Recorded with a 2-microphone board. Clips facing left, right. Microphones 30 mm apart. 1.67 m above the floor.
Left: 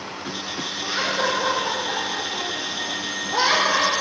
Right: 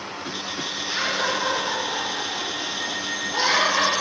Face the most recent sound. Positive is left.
turn(degrees=60)  # may be behind; listen again after turning